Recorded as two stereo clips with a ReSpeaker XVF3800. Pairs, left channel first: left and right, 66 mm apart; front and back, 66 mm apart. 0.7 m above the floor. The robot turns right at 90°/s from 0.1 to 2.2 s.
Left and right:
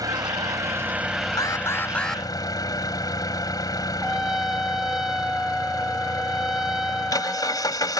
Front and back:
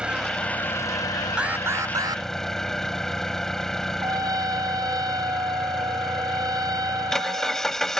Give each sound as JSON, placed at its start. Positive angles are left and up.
{"t": 0.0, "sound": "an engine running", "azimuth_deg": -105}
{"t": 1.4, "sound": "an alarm", "azimuth_deg": 105}
{"t": 4.0, "sound": "a trumpet", "azimuth_deg": -175}